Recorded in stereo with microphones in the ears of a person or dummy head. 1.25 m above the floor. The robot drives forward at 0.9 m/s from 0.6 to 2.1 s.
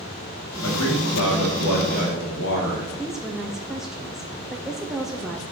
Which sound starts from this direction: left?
A man speaking, at 0.6 s.